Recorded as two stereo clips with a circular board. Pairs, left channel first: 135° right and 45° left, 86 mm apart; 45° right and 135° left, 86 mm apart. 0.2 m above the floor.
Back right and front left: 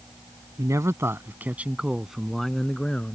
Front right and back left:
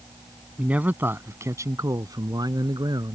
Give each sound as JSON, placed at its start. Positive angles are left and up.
{"t": 0.6, "sound": "a man speaking", "azimuth_deg": 65}